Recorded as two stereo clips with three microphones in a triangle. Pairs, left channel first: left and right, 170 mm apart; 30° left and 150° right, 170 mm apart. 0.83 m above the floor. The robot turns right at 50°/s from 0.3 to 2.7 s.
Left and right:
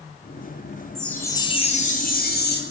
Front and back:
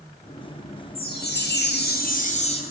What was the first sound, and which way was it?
A chime, straight ahead.